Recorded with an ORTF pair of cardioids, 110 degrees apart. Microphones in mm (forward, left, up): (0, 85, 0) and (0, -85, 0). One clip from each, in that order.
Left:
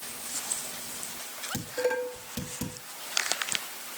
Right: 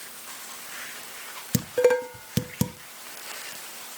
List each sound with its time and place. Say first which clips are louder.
1.5 s dishes clattering: right 8 dB; 65° right, 0.8 m